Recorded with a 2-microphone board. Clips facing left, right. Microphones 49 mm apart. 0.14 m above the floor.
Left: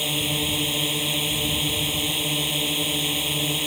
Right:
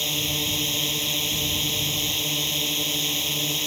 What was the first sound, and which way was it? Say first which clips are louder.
A drone: left 2 dB; 15° left (ahead or behind).